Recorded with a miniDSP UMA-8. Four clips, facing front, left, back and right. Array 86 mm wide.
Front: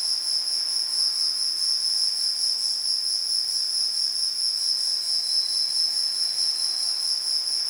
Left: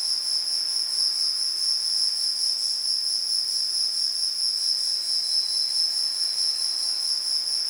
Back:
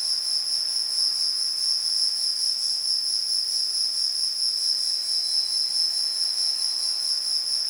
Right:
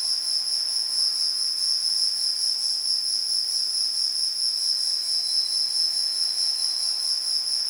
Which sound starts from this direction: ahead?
An insect, at 0.0 s.